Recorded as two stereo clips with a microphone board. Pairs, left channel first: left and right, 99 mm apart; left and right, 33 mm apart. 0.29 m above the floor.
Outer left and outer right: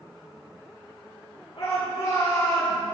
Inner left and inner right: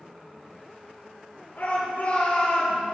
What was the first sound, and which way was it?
A shout, 70° left (ahead or behind).